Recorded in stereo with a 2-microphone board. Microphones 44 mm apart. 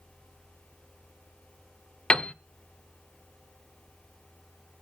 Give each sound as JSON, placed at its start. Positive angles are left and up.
{"t": 2.1, "sound": "a piano", "side_deg": 20, "distance_m": 0.5}